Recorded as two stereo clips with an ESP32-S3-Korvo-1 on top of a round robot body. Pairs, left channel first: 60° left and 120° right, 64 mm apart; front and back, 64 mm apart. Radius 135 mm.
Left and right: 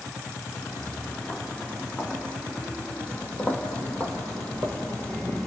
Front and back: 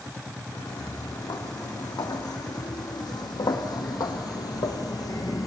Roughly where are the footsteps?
Ahead.